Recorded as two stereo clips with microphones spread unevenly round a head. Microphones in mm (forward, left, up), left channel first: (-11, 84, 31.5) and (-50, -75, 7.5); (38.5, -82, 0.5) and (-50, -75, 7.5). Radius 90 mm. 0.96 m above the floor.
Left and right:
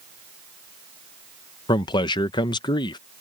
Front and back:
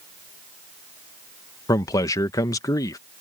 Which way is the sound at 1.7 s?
15° left.